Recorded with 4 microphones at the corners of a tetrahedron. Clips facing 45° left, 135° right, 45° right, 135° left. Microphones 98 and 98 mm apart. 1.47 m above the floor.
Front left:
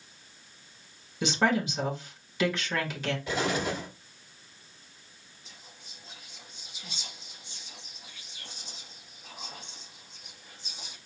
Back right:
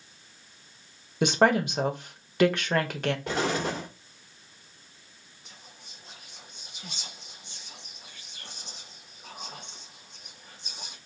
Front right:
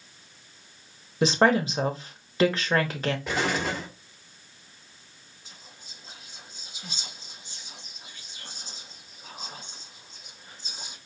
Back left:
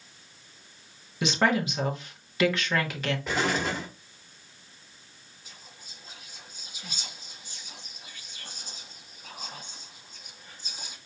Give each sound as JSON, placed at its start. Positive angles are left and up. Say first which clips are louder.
{"t": 1.2, "sound": "a woman speaking", "louder": "back right 4 dB, front right 4 dB", "azimuth_deg": -100, "distance_m": 1.1}
{"t": 3.3, "sound": "an explosion", "louder": "front left 2 dB, back left 2 dB", "azimuth_deg": -130, "distance_m": 1.9}
{"t": 5.5, "sound": "whispering", "louder": "back right 2 dB, even", "azimuth_deg": -110, "distance_m": 1.9}